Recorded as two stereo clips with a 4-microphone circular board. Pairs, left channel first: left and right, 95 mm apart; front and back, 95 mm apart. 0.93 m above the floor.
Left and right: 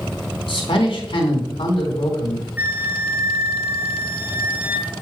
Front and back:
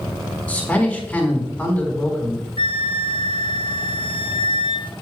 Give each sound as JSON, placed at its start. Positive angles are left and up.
{"t": 0.5, "sound": "a man speaking", "azimuth_deg": 75, "distance_m": 3.5}
{"t": 2.6, "sound": "a flute", "azimuth_deg": -20, "distance_m": 0.8}